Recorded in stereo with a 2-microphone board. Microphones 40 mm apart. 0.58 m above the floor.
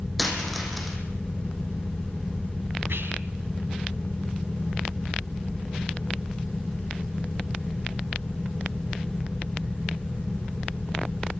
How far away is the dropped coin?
About 5.5 m.